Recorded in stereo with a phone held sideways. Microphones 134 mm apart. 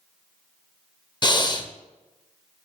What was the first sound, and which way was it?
Breathing, 30° left (ahead or behind).